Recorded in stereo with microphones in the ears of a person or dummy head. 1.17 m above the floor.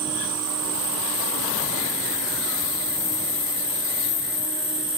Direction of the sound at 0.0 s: 70° right (ahead or behind).